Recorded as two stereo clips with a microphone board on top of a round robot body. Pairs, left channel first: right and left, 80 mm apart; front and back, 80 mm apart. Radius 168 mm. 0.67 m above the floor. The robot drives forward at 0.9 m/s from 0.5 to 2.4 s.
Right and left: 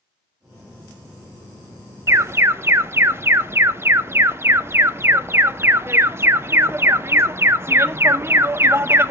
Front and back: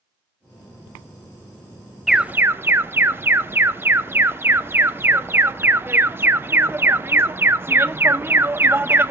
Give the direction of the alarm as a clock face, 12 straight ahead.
9 o'clock.